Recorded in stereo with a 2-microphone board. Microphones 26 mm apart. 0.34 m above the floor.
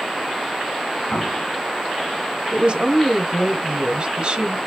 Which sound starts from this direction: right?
A woman speaking, at 2.5 s.